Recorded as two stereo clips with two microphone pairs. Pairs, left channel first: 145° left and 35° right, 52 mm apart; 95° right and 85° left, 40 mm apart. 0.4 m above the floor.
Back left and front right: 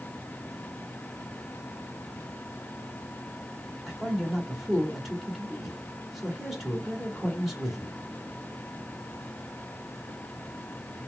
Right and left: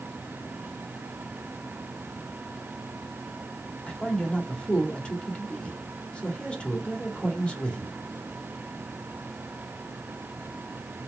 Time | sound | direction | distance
3.9 | a man speaking | 115° right | 1.6 m